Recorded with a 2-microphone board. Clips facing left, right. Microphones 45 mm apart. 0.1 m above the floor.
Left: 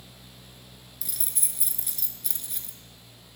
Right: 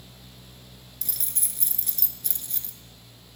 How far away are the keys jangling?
About 0.9 m.